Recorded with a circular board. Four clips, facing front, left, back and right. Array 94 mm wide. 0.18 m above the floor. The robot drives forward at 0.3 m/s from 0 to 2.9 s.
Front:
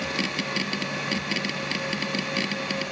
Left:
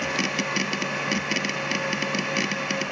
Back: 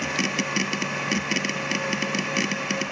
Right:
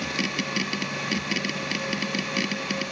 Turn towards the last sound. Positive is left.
No sound to turn to.